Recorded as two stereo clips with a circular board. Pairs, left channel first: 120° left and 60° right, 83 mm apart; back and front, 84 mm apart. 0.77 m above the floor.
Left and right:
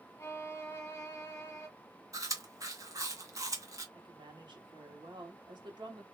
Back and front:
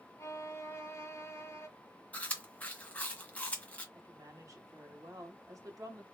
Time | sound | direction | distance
0.2 | a violin | 155° left | 1.1 m
2.1 | chewing | 110° right | 1.3 m
4.0 | a woman speaking | 45° right | 1.7 m